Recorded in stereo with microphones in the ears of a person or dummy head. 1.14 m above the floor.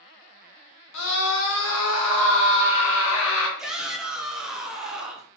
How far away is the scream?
About 1.1 m.